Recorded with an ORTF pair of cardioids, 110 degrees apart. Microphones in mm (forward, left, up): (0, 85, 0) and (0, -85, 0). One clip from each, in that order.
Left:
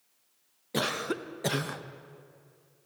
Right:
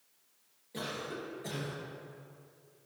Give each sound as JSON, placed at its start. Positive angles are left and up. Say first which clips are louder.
{"t": 0.7, "sound": "a cough", "louder": "left 9 dB", "azimuth_deg": 70, "distance_m": 0.7}